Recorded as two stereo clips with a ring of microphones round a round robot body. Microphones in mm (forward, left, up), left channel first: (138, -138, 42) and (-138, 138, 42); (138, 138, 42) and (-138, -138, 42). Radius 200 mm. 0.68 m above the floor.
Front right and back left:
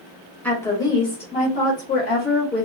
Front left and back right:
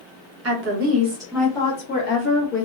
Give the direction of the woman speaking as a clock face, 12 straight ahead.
4 o'clock.